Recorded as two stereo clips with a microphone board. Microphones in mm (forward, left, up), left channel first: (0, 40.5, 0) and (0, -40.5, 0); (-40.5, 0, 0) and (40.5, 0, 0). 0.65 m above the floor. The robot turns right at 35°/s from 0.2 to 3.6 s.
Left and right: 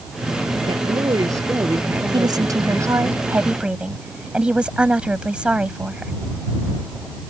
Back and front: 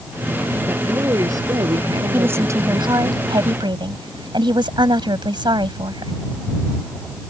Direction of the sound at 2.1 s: 65° right.